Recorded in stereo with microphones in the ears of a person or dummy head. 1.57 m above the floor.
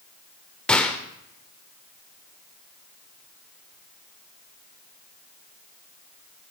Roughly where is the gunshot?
Centre.